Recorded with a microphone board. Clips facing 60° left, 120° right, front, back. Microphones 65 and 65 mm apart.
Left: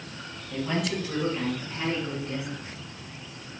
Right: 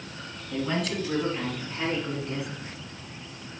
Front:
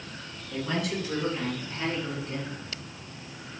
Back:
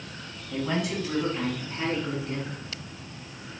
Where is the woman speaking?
130° left, 1.3 m; by 2.6 s 160° left, 2 m.